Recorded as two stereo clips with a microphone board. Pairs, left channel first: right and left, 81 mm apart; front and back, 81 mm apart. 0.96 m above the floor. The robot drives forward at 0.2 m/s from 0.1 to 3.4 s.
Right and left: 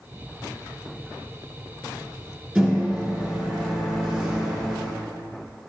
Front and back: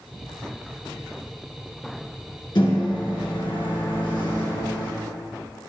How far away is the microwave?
About 1.7 m.